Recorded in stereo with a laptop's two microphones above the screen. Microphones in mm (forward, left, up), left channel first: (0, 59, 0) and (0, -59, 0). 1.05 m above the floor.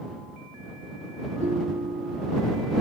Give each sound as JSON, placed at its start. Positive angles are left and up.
{"t": 1.4, "sound": "a ringtone", "side_deg": -70}